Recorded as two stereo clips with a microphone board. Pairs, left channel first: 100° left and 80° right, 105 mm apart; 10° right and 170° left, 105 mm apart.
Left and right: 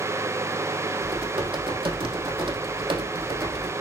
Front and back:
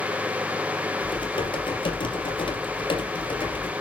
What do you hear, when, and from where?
1.0 s typing on a keyboard: 45° right, 3.5 m